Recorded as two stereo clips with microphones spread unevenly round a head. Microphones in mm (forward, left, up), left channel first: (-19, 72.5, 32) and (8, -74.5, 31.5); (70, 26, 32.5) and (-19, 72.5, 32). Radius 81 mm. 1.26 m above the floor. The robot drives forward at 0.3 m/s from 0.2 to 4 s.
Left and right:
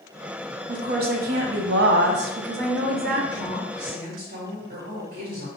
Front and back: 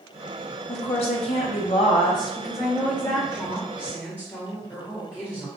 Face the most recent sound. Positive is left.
turn(degrees=-110)